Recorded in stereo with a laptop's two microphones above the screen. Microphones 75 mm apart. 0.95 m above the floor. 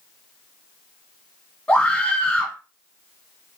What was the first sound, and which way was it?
A scream, 15° left (ahead or behind).